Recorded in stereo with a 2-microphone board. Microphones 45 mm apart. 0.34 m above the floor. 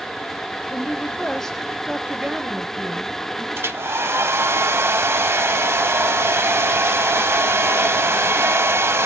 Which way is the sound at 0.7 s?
45° left (ahead or behind).